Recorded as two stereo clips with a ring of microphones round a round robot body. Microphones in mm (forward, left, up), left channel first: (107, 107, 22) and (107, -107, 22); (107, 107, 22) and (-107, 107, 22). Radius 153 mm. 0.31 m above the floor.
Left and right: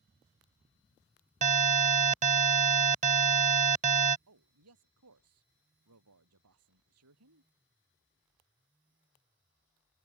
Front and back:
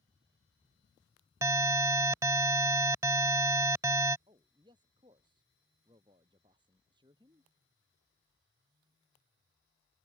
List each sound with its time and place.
1.4 s an alarm: 115° right
4.3 s a man speaking: 105° right